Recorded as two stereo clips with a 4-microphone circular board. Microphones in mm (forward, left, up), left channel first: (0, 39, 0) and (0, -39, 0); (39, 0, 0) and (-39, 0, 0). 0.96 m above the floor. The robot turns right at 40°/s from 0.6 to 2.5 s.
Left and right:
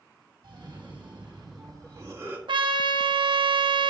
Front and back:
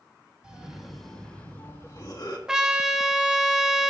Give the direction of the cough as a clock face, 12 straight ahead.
3 o'clock.